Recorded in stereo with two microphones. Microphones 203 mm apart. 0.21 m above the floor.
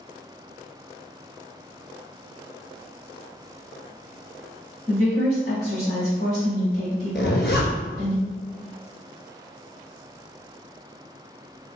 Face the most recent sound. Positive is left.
turn(degrees=60)  # may be behind; listen again after turning